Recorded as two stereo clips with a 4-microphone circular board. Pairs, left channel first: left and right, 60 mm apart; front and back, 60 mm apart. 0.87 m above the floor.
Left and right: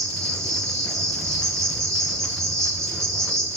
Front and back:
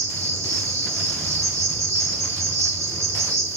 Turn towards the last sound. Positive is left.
turn(degrees=165)